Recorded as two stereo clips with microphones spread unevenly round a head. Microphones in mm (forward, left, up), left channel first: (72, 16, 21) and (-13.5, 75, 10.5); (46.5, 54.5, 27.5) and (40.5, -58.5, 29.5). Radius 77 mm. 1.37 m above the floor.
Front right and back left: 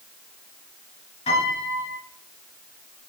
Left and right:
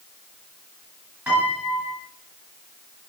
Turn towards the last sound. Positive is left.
turn(degrees=-20)